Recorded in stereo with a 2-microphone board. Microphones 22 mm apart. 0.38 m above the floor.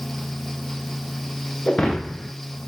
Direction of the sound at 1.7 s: 60° left (ahead or behind).